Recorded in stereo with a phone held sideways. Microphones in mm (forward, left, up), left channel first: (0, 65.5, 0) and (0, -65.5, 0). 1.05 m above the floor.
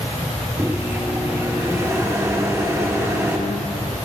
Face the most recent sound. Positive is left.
turn(degrees=-20)  # may be behind; listen again after turning